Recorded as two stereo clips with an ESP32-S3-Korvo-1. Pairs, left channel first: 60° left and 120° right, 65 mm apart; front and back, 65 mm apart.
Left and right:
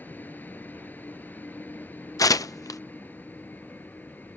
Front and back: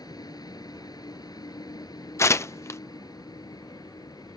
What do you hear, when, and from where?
0.0 s a vehicle: straight ahead
2.2 s tearing paper: 40° left